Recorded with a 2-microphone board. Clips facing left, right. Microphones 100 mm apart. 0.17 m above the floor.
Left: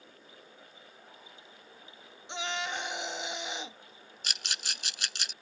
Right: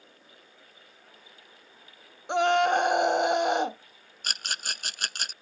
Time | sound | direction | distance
2.3 | a scream | 55° right (ahead or behind) | ?
4.2 | a rattle | 50° right (ahead or behind) | ?